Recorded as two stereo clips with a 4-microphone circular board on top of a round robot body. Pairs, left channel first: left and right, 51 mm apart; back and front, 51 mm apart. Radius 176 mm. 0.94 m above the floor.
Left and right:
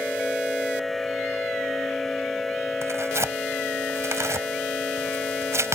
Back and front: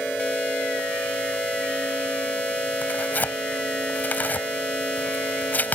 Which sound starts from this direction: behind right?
Tearing paper, at 2.8 s.